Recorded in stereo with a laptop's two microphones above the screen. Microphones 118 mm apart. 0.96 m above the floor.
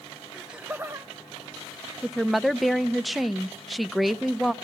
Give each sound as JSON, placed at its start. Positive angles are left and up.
{"t": 0.3, "sound": "laughter", "side_deg": 0, "distance_m": 0.8}
{"t": 2.0, "sound": "a woman speaking", "side_deg": 0, "distance_m": 0.6}